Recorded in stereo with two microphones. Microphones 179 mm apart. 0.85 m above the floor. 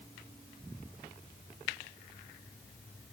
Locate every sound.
Only background noise.